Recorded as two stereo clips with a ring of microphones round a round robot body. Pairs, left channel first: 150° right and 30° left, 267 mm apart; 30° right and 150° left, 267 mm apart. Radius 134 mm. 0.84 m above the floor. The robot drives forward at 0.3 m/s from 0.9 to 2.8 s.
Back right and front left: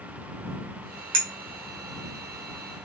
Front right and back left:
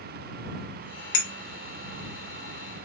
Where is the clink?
5° right, 0.7 m.